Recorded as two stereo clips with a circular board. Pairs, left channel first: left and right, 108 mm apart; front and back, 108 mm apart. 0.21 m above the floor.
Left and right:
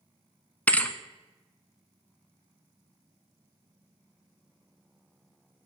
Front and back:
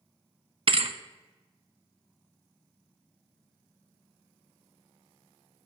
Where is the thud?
165° left, 0.7 m.